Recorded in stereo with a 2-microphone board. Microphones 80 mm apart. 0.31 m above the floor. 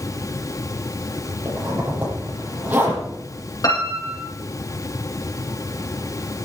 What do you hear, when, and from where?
1.4 s a zipper: 20° right (ahead or behind), 10 m
3.6 s a piano: 45° left (ahead or behind), 8 m